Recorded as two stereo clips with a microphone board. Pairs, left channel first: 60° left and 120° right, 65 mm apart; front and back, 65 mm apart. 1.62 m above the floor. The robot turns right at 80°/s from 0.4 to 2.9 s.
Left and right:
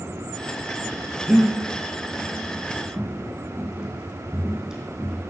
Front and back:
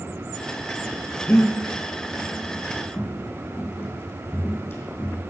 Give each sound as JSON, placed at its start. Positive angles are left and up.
{"t": 1.3, "sound": "breathing", "azimuth_deg": -45, "distance_m": 1.7}
{"t": 2.9, "sound": "footsteps", "azimuth_deg": -55, "distance_m": 3.5}